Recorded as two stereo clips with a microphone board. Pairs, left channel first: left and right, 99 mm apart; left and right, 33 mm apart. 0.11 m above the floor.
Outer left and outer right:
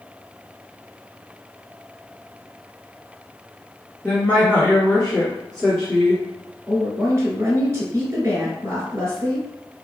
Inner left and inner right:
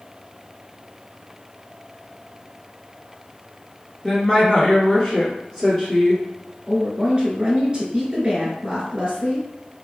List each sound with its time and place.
4.0 s a woman speaking: 20° left (ahead or behind), 1.5 m; by 6.2 s 5° left (ahead or behind), 1.4 m
6.7 s a woman speaking: 30° right (ahead or behind), 1.3 m